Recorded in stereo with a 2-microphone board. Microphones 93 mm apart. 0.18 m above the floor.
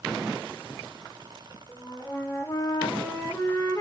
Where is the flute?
30° left (ahead or behind), 7 m.